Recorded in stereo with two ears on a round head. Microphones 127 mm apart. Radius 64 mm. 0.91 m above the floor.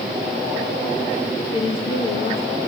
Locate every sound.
1.5 s a woman speaking: 40° left (ahead or behind), 2.5 m